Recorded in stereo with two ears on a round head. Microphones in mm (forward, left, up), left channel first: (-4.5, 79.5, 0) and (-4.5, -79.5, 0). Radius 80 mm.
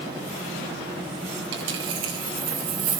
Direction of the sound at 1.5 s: 75° right (ahead or behind).